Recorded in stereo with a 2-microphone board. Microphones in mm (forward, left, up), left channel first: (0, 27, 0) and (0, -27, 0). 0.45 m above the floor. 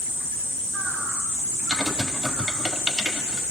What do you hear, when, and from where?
1.7 s typing on a keyboard: 10° right (ahead or behind), 1.6 m